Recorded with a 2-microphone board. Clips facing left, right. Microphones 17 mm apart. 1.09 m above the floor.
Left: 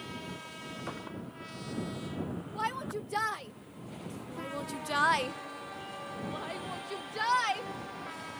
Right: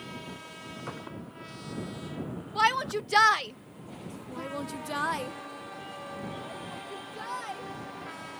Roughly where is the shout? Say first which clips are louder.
Right 10 dB; right.